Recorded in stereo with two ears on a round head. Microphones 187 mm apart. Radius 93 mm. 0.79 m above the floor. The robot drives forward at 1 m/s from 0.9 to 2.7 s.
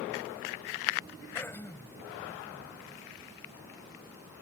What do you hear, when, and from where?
1.4 s throat clearing: 10° left (ahead or behind)